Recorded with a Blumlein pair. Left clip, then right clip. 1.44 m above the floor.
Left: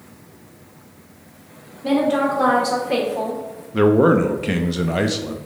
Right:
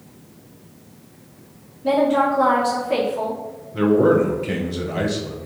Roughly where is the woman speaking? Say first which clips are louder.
Right 1 dB; ahead left.